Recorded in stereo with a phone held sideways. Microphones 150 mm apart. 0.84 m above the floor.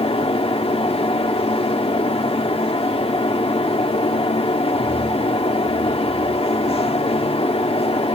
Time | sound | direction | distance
0.0 | a fan | 40° left (ahead or behind) | 1.3 m